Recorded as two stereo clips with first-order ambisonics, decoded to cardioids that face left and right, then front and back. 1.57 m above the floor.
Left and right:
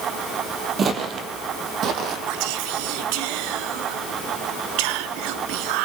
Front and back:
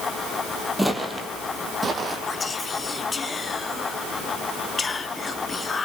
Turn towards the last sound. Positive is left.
turn(degrees=-75)